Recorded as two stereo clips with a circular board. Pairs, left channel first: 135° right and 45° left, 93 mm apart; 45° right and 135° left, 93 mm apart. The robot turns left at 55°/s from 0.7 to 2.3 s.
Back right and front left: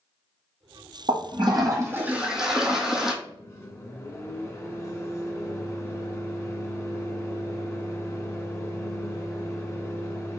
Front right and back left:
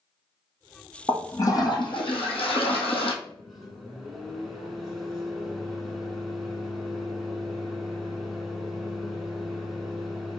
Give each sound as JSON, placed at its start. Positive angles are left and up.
{"t": 1.1, "sound": "a toilet flushing", "azimuth_deg": 25, "distance_m": 1.5}
{"t": 3.2, "sound": "a microwave", "azimuth_deg": -135, "distance_m": 1.3}